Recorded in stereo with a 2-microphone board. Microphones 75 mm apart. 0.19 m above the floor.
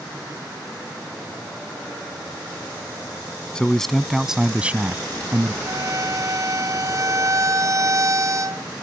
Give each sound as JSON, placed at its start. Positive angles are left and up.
{"t": 3.5, "sound": "a man speaking", "side_deg": 10}
{"t": 5.7, "sound": "a violin", "side_deg": -45}